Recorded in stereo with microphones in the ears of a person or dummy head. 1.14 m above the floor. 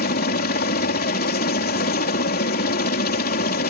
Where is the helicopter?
40° left (ahead or behind).